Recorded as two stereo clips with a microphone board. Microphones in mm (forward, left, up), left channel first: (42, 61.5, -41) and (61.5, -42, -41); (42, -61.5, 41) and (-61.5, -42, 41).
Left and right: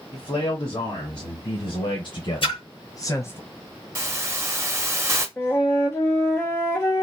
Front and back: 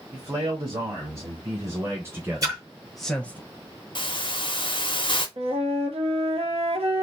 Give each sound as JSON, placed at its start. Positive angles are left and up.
{"t": 0.1, "sound": "a man speaking", "azimuth_deg": 130, "distance_m": 2.5}
{"t": 2.4, "sound": "a splash", "azimuth_deg": 120, "distance_m": 1.6}
{"t": 4.0, "sound": "a hiss", "azimuth_deg": -25, "distance_m": 0.8}
{"t": 5.4, "sound": "a flute", "azimuth_deg": 165, "distance_m": 1.1}